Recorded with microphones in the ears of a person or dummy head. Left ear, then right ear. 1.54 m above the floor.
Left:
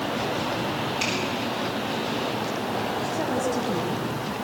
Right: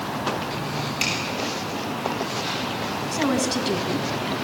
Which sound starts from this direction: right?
A woman speaking, at 3.1 s.